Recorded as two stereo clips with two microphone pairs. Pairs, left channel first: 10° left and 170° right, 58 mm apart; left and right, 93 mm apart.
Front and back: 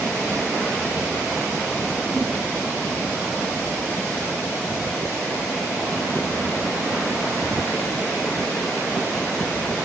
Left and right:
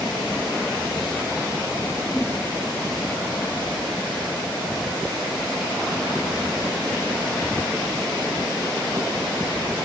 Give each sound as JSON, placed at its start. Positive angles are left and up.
{"t": 2.1, "sound": "a whoosh", "azimuth_deg": 160, "distance_m": 6.5}